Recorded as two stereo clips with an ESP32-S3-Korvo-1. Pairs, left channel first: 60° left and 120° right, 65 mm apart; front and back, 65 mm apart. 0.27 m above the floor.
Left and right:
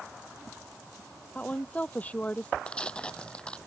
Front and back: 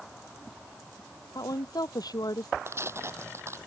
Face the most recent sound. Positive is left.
turn(degrees=135)